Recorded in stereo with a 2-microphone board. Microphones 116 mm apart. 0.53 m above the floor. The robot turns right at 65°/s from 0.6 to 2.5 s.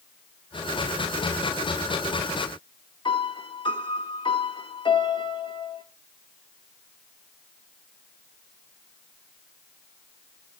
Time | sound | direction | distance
3.0 | a piano | 45° left (ahead or behind) | 1.2 m